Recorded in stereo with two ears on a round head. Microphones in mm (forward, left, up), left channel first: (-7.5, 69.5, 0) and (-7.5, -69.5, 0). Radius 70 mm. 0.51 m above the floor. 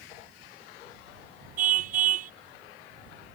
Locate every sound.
1.6 s a car horn: 50° right (ahead or behind)